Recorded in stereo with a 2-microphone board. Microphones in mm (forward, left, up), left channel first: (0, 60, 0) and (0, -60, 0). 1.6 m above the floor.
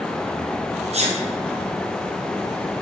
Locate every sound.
0.9 s a sneeze: 60° right (ahead or behind), 0.7 m